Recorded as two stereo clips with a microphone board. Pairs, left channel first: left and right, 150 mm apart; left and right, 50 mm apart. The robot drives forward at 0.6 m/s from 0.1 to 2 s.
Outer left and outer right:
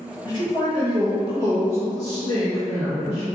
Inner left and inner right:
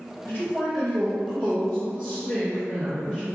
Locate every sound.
0.2 s a man speaking: 30° left (ahead or behind), 2.0 m; by 3.2 s 25° left (ahead or behind), 2.5 m